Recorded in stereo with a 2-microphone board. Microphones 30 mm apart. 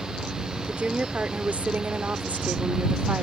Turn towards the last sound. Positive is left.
turn(degrees=-65)  # may be behind; listen again after turning